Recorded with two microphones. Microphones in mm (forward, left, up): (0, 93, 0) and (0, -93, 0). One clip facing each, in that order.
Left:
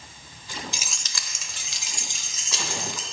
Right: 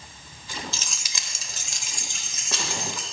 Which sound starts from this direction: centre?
Keys jangling, at 0.7 s.